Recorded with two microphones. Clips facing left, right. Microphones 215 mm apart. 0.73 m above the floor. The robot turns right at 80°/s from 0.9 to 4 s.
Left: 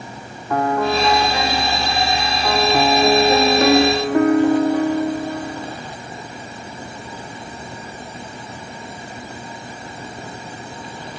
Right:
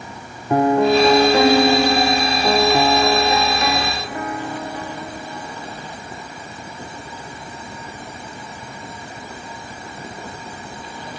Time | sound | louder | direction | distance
0.5 | a piano | right 5 dB | 155° right | ?